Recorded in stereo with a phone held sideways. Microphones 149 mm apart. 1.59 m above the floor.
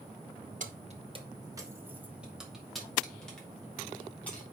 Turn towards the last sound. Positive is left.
turn(degrees=10)  # may be behind; listen again after turning